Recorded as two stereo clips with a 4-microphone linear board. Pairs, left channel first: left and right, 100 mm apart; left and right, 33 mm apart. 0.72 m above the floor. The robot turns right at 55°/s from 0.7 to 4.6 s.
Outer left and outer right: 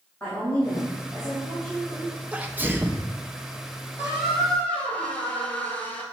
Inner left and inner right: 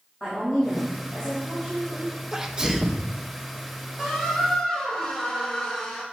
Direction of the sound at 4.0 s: 20° right.